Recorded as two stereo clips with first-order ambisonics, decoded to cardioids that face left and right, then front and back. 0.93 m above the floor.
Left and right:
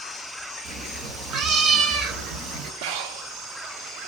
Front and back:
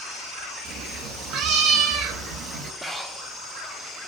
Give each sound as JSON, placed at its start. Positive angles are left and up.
{"t": 0.7, "sound": "a cat meowing", "azimuth_deg": -140, "distance_m": 2.5}
{"t": 2.8, "sound": "breathing", "azimuth_deg": -95, "distance_m": 1.5}